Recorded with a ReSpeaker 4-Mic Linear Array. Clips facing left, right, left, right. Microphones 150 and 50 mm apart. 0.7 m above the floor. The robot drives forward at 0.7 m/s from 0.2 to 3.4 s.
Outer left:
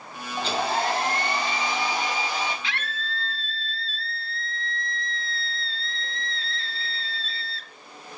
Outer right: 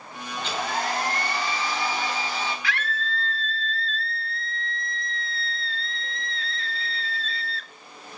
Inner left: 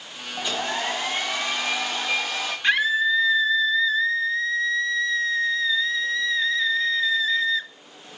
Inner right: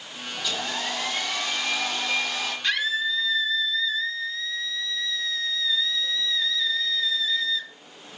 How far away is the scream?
About 0.7 m.